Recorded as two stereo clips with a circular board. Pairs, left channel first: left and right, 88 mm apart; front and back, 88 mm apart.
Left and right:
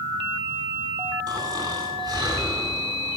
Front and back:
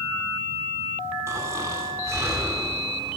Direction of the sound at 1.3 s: 125° right.